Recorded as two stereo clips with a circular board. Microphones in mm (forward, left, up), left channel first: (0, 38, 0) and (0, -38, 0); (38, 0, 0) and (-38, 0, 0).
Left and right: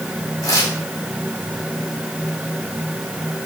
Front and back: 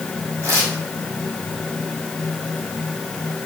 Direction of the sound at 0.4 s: 125° left.